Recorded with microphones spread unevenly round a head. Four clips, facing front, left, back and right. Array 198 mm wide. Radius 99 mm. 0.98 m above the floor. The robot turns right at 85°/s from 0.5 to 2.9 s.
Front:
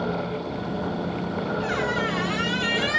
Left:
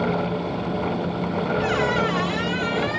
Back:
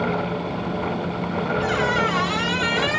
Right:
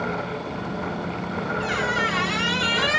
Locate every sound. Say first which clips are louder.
1.6 s a squeak: left 2 dB, back 5 dB; 130° left, 2 m; by 3.0 s 120° right, 2 m